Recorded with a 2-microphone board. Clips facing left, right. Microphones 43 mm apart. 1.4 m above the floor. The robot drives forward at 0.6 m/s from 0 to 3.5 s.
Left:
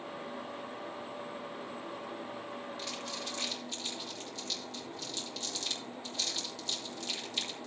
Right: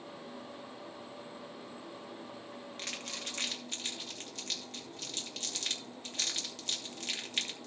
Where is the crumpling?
55° right (ahead or behind), 2.5 m; by 7.7 s 50° right (ahead or behind), 2.5 m.